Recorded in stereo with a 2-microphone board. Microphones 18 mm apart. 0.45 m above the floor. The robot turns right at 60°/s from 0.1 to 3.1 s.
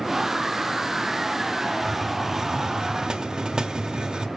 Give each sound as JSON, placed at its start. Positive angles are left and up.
{"t": 1.8, "sound": "a hiss", "azimuth_deg": 180, "distance_m": 0.8}